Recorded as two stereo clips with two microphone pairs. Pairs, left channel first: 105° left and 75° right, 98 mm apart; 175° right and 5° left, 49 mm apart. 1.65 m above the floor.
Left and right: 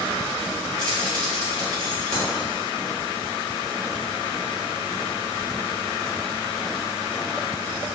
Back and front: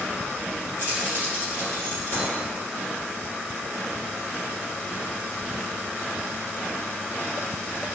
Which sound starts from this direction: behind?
Keys jangling, at 0.8 s.